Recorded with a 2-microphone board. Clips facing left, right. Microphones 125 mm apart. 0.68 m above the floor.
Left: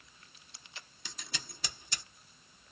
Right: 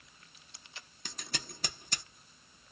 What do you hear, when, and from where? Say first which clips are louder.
1.1 s scissors: right 4 dB; 50° right (ahead or behind), 1.0 m